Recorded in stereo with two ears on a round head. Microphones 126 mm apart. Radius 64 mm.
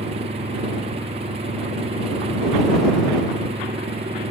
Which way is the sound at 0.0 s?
45° right (ahead or behind).